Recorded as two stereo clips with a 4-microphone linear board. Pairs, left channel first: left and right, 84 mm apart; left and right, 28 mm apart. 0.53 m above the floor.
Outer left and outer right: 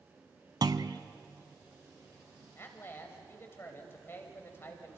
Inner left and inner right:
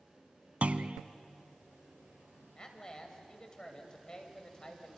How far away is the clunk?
About 0.7 m.